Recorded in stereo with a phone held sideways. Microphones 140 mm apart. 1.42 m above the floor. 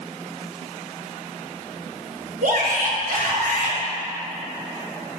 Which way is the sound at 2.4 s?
70° right (ahead or behind).